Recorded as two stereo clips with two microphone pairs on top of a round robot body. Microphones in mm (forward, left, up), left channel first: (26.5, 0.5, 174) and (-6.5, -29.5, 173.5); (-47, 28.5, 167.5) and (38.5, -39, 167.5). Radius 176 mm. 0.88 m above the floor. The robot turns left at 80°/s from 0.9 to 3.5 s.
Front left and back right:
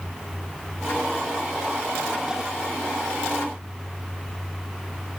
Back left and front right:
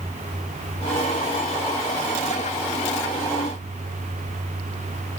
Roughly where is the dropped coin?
No dropped coin in this recording.